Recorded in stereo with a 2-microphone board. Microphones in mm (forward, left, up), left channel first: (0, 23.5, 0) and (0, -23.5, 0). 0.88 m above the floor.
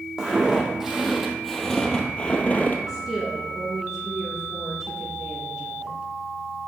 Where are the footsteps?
15° right (ahead or behind), 1.9 m; by 2.8 s 35° left (ahead or behind), 1.0 m.